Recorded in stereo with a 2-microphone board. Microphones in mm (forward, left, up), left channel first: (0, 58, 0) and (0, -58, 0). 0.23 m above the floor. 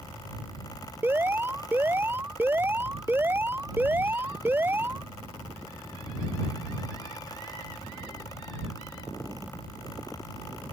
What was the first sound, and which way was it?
An alarm, 15° right (ahead or behind).